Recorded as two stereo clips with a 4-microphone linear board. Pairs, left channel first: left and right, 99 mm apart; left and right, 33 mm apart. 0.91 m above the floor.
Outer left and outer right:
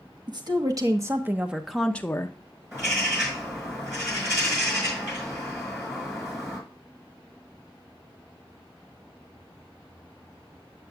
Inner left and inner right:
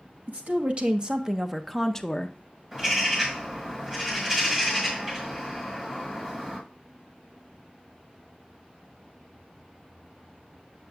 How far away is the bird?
About 5.5 m.